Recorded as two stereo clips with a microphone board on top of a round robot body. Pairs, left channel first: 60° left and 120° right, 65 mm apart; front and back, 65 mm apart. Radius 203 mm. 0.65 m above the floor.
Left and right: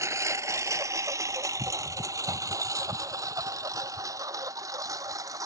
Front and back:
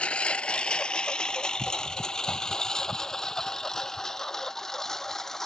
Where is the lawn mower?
70° right; by 5.5 s 85° right.